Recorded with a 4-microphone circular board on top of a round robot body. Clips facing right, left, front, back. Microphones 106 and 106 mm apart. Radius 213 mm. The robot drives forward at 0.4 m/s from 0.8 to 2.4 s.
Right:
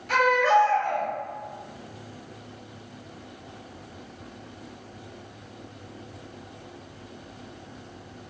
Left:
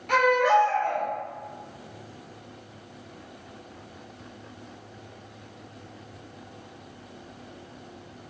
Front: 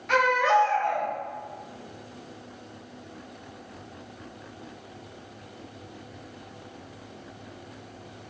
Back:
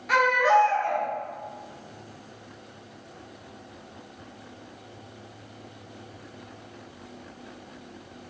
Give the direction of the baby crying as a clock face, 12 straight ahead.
9 o'clock.